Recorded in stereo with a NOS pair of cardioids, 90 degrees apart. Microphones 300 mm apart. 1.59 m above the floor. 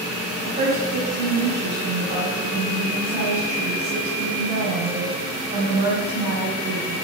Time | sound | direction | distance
0.4 | a woman speaking | 40° right | 2.0 m